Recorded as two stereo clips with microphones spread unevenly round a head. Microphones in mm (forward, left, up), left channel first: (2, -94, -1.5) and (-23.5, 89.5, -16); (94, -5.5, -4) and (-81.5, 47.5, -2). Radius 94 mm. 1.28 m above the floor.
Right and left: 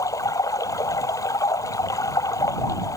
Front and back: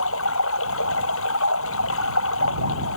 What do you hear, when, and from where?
0.0 s running water: 10° right